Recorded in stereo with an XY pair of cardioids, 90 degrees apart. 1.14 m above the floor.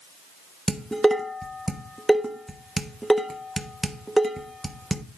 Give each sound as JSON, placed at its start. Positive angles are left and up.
{"t": 0.7, "sound": "dishes clattering", "azimuth_deg": -5, "distance_m": 1.1}